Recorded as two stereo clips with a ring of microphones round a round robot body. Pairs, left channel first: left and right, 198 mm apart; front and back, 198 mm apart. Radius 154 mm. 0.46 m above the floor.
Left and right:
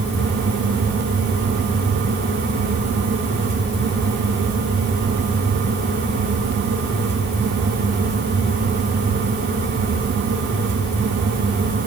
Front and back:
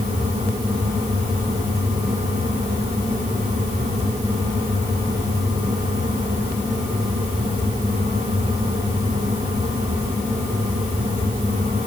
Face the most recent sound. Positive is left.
No sound to turn to.